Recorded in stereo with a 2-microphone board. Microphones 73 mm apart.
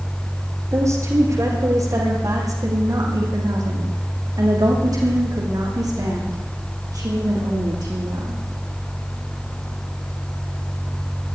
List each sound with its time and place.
0.7 s a woman speaking: 45° right (ahead or behind), 6 m; by 8.4 s 70° right (ahead or behind), 9 m